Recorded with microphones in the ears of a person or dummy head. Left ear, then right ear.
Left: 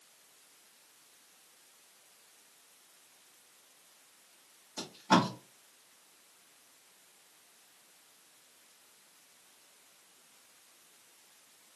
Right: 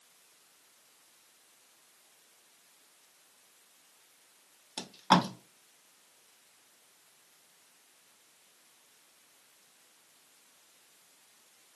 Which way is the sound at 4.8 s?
45° right (ahead or behind).